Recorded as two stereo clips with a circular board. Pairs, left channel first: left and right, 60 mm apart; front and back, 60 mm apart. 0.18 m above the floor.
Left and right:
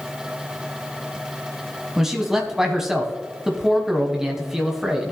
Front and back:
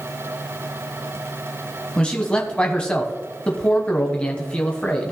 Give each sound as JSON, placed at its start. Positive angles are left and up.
{"t": 2.0, "sound": "a man speaking", "azimuth_deg": -25, "distance_m": 1.1}